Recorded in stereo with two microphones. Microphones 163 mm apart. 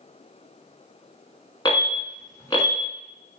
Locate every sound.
1.6 s an alarm: 25° left (ahead or behind), 1.3 m